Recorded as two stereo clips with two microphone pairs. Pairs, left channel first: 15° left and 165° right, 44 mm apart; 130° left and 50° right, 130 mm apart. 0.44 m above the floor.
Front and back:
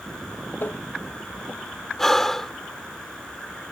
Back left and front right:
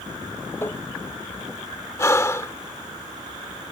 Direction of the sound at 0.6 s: 55° left.